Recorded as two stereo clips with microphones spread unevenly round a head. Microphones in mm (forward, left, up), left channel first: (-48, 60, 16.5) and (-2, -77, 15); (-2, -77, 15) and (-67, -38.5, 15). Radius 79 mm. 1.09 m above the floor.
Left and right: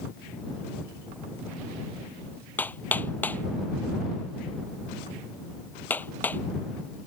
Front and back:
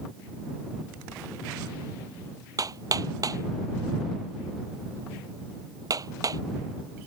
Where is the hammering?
175° right.